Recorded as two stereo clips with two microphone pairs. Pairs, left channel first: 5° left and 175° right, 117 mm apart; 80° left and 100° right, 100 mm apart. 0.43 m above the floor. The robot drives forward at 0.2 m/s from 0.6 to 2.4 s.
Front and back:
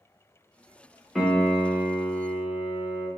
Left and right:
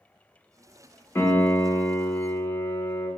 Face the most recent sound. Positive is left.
turn(degrees=130)